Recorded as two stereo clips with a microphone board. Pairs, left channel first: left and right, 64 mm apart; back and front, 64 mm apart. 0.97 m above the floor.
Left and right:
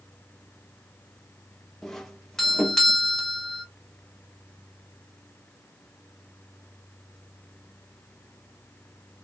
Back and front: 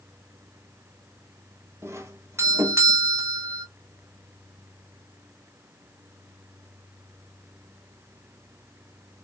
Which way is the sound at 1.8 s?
5° left.